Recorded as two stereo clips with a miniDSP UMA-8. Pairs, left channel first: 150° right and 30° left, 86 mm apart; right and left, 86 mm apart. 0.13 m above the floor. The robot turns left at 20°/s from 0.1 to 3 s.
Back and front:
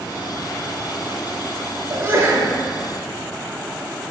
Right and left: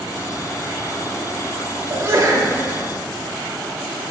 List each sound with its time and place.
1.9 s a sneeze: 75° left, 1.3 m; by 2.5 s 60° left, 1.3 m